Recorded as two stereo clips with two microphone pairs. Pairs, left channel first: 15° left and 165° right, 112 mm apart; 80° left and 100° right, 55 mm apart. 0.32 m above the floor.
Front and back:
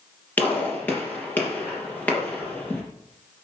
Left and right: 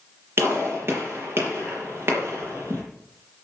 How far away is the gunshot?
About 6 m.